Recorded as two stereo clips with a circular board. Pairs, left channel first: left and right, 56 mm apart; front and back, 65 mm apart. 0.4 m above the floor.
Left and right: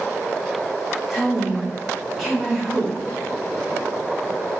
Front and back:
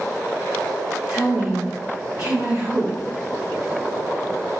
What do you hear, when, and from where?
1.1 s a woman speaking: 175° left, 1.1 m